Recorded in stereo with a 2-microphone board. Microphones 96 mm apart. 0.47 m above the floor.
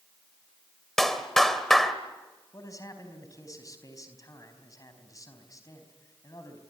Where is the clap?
5° left (ahead or behind), 1.9 m.